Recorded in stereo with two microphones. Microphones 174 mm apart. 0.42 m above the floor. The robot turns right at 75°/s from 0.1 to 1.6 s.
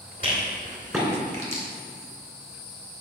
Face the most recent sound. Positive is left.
turn(degrees=-50)  # may be behind; listen again after turning